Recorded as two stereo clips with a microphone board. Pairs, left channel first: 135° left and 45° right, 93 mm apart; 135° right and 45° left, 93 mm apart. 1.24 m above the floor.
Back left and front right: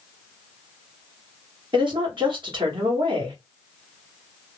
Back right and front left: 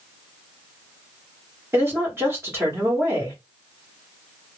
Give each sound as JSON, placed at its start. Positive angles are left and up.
{"t": 1.7, "sound": "a woman speaking", "azimuth_deg": -20, "distance_m": 1.6}